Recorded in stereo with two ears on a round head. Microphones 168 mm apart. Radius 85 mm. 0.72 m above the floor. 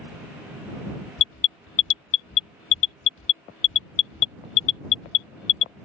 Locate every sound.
1.2 s an alarm: 75° left (ahead or behind)